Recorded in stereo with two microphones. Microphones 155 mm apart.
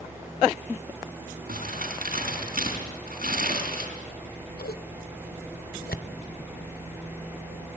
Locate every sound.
1.5 s crumpling: 75° right (ahead or behind), 4.5 m
4.1 s scissors: 90° left, 0.8 m